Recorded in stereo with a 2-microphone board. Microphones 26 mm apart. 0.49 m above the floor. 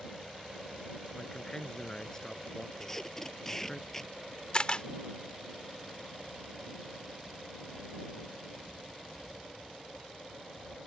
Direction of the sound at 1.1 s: 20° left (ahead or behind).